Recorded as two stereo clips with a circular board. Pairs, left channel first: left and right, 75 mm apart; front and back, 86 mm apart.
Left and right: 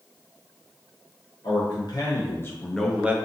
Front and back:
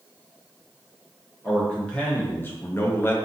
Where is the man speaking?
80° left, 0.9 m; by 3.1 s 40° right, 0.5 m.